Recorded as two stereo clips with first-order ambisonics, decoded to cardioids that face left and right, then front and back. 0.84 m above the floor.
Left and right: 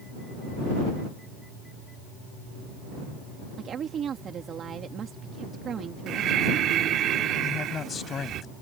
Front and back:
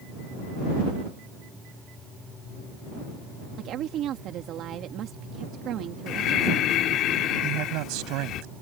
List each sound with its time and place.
3.6 s a woman speaking: 145° right
6.1 s breathing: 40° right
7.4 s a man speaking: 155° left